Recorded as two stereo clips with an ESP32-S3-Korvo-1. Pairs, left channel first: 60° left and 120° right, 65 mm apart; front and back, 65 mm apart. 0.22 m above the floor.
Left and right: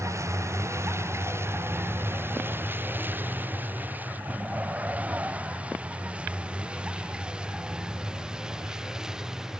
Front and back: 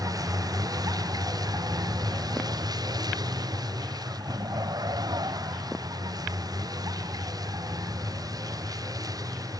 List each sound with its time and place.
0.0 s a vehicle: 160° right; by 9.6 s 160° left